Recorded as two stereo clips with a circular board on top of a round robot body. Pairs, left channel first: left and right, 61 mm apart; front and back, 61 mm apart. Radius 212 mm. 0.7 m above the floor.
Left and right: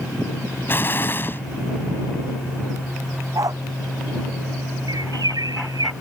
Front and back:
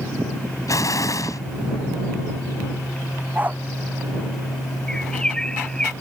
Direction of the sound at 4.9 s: 80° right.